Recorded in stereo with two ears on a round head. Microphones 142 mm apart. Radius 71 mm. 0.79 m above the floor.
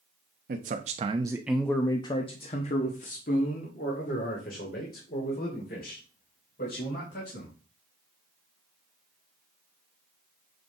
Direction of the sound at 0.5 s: 60° right (ahead or behind).